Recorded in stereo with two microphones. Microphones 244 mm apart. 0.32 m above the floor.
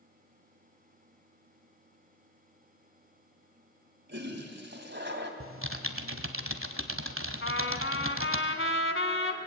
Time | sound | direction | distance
4.1 | a toilet flushing | 45° right (ahead or behind) | 2.5 m
5.4 | typing on a keyboard | 60° right (ahead or behind) | 1.4 m
7.4 | a trumpet | 55° left (ahead or behind) | 1.7 m